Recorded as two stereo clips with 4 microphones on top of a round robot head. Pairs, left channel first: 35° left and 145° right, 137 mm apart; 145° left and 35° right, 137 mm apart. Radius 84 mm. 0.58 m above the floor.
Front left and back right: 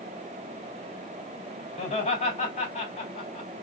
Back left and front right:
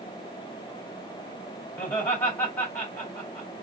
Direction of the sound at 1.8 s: 70° left.